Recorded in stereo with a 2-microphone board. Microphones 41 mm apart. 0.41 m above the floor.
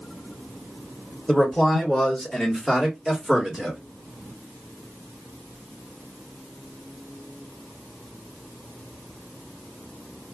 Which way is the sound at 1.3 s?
10° left (ahead or behind).